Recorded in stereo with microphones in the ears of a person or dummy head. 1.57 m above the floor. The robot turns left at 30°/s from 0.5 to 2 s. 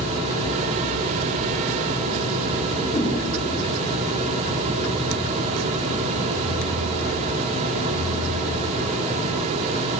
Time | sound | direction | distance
2.9 | a whoosh | 15° left (ahead or behind) | 1.1 m